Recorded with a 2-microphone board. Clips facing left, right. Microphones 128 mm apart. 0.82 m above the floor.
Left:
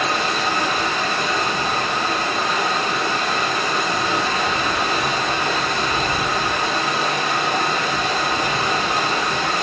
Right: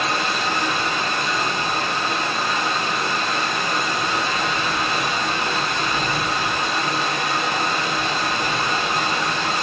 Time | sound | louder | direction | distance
0.0 | running water | left 2 dB | 45° left (ahead or behind) | 5.5 m